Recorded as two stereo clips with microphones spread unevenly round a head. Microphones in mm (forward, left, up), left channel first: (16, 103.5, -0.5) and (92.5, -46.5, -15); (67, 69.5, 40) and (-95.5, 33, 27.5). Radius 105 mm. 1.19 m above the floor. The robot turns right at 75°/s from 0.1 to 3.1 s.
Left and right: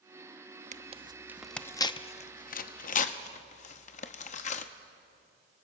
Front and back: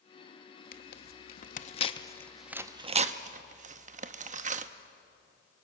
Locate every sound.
0.7 s tearing paper: 25° right, 0.7 m; by 4.7 s 155° left, 0.7 m